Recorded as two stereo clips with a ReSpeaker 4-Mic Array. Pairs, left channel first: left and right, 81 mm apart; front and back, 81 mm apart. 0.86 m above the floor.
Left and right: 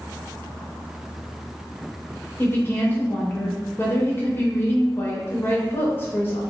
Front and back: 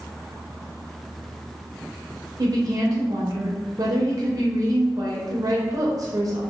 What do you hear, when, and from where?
2.4 s a woman speaking: 150° left, 0.7 m